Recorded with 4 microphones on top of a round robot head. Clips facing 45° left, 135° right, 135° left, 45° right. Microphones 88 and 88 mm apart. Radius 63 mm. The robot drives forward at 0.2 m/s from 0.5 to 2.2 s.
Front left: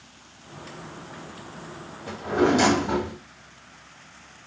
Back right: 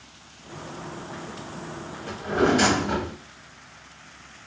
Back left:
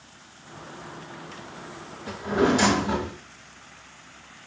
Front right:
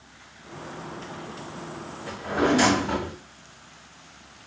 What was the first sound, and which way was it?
A drawer, 85° left.